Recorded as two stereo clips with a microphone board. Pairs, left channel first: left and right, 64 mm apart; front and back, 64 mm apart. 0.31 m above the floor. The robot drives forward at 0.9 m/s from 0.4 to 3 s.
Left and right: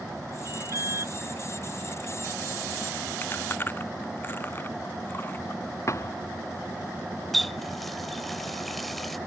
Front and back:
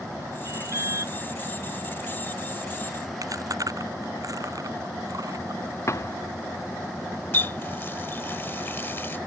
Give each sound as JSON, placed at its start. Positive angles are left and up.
{"t": 0.5, "sound": "an alarm", "azimuth_deg": -135}
{"t": 3.2, "sound": "chewing", "azimuth_deg": 150}
{"t": 5.9, "sound": "a thud", "azimuth_deg": 45}
{"t": 7.3, "sound": "a running tap", "azimuth_deg": 5}